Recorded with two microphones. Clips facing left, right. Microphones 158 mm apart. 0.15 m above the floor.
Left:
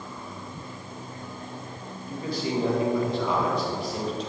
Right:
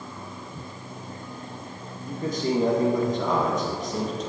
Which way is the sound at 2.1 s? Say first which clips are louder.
Right 3 dB; 45° right (ahead or behind).